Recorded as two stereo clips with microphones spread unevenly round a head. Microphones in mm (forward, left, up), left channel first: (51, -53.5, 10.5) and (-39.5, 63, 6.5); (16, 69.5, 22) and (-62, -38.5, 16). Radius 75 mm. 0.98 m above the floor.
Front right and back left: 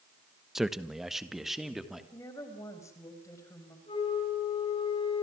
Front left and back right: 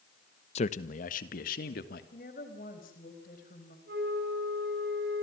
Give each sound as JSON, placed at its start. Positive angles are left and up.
{"t": 0.6, "sound": "a man speaking", "azimuth_deg": 45, "distance_m": 1.1}
{"t": 2.1, "sound": "a woman speaking", "azimuth_deg": 20, "distance_m": 4.5}
{"t": 3.9, "sound": "a flute", "azimuth_deg": -110, "distance_m": 6.5}